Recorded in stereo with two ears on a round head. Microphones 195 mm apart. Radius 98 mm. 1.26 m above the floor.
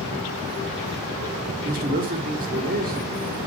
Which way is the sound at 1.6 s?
45° right (ahead or behind).